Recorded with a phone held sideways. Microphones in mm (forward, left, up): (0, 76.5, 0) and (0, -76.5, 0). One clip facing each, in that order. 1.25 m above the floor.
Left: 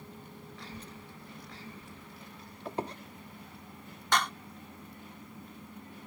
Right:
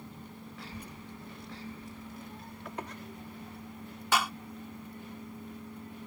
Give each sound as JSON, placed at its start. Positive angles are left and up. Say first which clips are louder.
{"t": 0.6, "sound": "a child speaking", "louder": "right 2 dB", "side_deg": -5}
{"t": 2.6, "sound": "a squeak", "louder": "left 6 dB", "side_deg": 30}
{"t": 4.1, "sound": "a clap", "louder": "even", "side_deg": -5}